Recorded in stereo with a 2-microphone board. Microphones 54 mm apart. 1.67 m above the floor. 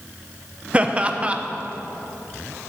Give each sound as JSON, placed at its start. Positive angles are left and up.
{"t": 0.7, "sound": "laughter", "side_deg": -20, "distance_m": 0.5}